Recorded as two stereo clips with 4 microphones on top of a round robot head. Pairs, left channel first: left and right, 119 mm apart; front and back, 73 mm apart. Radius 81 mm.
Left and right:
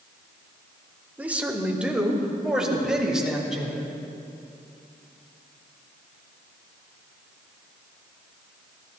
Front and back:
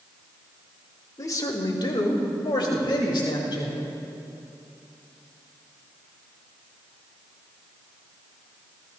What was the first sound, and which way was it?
A man speaking, 15° right.